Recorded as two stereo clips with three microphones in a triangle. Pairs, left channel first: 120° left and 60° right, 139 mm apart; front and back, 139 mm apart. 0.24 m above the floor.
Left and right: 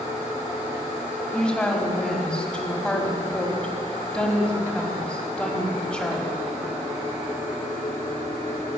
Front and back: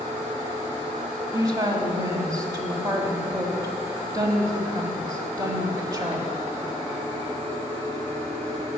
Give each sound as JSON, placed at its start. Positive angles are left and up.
{"t": 1.3, "sound": "a woman speaking", "azimuth_deg": -165, "distance_m": 1.6}